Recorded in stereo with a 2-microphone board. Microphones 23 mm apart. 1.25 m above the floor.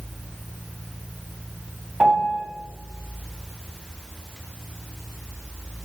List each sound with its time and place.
2.0 s a piano: 30° right (ahead or behind), 3 m